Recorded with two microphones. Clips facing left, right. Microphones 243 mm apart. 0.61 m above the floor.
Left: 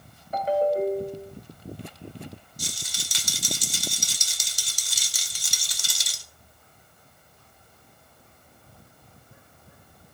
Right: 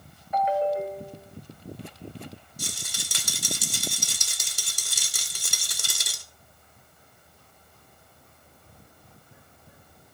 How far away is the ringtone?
About 1.8 m.